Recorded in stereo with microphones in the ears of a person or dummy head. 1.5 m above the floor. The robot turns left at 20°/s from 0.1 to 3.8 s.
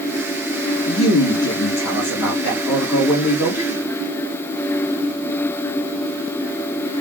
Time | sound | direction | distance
0.9 | a man speaking | 105° left | 3 m